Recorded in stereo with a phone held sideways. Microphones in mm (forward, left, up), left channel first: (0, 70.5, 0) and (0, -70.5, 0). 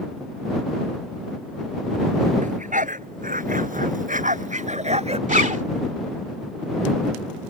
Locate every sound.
2.4 s a dog barking: 70° right (ahead or behind); by 5.2 s 50° right (ahead or behind)
5.3 s a zipper: 70° right (ahead or behind)